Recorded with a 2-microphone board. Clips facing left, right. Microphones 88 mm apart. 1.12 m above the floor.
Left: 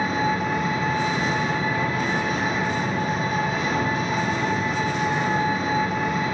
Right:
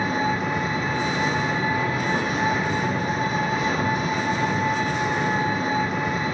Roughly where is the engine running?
Right.